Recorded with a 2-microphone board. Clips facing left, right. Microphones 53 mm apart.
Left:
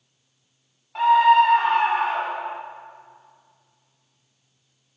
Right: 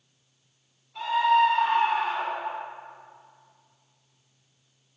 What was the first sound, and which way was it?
A scream, 80° left.